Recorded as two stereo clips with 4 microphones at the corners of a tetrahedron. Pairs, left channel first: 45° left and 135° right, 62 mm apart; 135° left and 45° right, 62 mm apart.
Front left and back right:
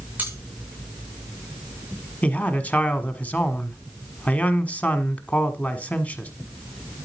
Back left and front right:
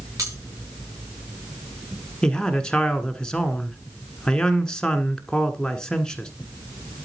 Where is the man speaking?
75° left, 1.4 m.